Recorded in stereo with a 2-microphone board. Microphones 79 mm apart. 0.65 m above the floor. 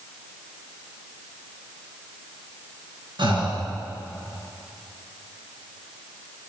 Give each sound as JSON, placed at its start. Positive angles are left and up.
{"t": 3.2, "sound": "breathing", "side_deg": -75, "distance_m": 5.5}